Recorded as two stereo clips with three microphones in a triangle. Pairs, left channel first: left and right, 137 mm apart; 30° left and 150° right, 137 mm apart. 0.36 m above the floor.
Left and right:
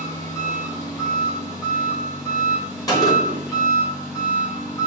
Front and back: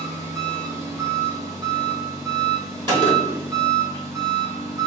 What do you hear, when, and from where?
0.0 s an engine running: 150° left, 1.6 m
2.9 s a gunshot: 155° left, 2.0 m